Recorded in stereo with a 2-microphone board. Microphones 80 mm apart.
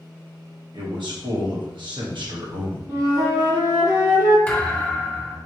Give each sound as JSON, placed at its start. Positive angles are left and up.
{"t": 0.7, "sound": "a man speaking", "side_deg": -70, "distance_m": 1.3}
{"t": 2.9, "sound": "a flute", "side_deg": -50, "distance_m": 1.9}
{"t": 4.5, "sound": "a thud", "side_deg": 15, "distance_m": 0.8}